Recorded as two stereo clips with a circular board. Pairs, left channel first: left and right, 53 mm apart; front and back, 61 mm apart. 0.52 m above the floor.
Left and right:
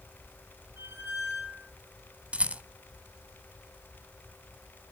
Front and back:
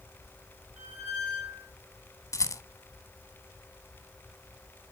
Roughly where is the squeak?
Behind right.